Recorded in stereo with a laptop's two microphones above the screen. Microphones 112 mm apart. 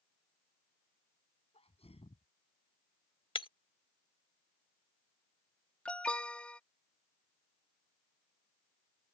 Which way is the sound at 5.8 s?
10° left (ahead or behind).